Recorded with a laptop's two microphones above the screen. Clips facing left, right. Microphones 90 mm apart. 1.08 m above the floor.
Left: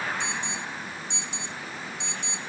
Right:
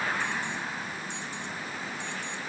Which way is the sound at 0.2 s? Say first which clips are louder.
Even; 45° right (ahead or behind).